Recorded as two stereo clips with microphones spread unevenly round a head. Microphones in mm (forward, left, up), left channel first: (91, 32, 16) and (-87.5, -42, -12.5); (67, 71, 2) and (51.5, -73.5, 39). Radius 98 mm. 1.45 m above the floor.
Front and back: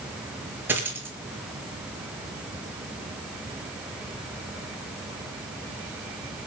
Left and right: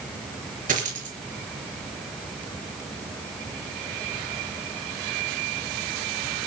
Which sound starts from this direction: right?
A dropped coin, at 0.7 s.